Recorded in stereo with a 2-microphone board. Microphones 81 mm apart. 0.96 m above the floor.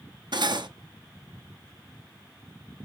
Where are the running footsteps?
I don't hear running footsteps.